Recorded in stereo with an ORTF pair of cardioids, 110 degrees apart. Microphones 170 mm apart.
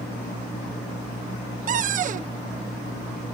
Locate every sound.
1.7 s a cupboard door: 50° right